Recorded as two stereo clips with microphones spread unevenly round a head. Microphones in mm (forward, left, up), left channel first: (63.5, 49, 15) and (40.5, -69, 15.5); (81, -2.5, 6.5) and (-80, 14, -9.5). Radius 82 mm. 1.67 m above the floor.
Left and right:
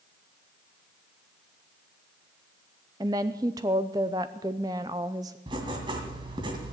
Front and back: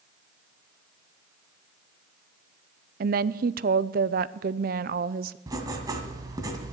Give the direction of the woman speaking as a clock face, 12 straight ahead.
5 o'clock.